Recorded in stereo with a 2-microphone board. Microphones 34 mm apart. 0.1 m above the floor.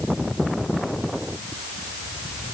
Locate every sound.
Only background noise.